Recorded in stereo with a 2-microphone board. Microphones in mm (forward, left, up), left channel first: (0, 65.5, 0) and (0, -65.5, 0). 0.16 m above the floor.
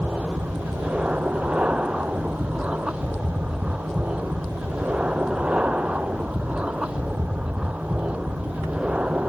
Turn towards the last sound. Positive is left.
turn(degrees=-10)  # may be behind; listen again after turning